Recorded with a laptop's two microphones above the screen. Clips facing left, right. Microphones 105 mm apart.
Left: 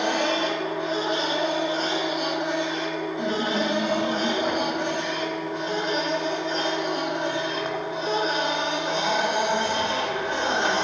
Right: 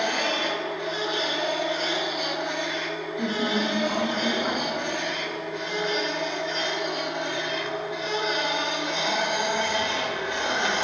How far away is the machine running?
About 0.8 m.